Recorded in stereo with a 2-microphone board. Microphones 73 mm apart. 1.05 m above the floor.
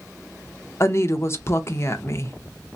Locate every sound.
0.8 s a woman speaking: 40° left (ahead or behind), 0.5 m